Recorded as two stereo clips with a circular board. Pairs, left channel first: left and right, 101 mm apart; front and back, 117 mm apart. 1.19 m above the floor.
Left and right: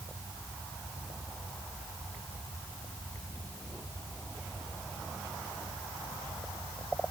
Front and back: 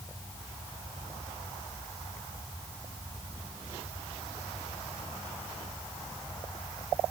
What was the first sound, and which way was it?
Only background noise.